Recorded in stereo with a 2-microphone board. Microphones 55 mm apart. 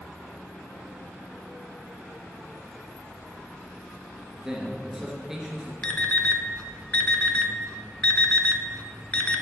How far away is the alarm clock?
About 0.5 m.